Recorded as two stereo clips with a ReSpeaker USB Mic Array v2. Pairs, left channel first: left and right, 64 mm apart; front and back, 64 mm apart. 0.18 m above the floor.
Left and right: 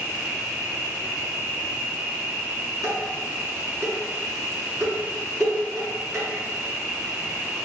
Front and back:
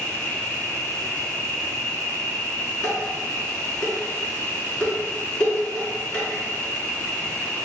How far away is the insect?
About 0.8 m.